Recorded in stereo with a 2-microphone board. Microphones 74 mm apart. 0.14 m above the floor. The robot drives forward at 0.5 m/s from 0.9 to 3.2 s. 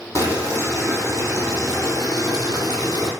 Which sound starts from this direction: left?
Boiling, at 0.1 s.